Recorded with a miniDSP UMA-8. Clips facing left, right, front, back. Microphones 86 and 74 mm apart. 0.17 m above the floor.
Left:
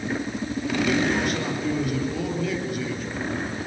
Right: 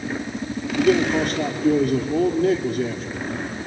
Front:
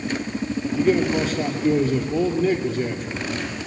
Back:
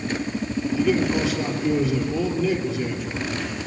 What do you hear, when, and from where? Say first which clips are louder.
0.8 s a man speaking: right 6 dB, front 2 dB; 45° right, 3 m